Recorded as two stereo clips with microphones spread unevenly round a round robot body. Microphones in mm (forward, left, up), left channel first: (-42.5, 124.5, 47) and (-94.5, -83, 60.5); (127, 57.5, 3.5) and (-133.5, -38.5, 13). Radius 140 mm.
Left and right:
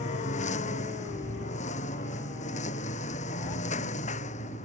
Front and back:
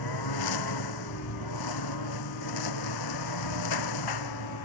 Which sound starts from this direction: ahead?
A lawn mower, at 0.0 s.